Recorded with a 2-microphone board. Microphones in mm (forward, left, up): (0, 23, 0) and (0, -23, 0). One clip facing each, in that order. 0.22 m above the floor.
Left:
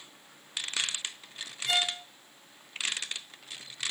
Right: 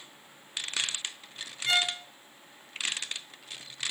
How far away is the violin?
About 2 m.